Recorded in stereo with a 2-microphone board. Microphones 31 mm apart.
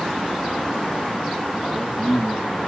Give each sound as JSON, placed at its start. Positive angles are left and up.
{"t": 1.6, "sound": "a man speaking", "side_deg": 20, "distance_m": 8.5}